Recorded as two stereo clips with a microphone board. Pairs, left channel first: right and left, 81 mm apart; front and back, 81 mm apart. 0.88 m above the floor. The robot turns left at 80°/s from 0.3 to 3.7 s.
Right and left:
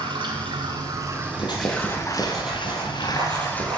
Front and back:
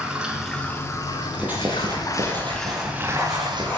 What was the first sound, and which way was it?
Running water, 100° left.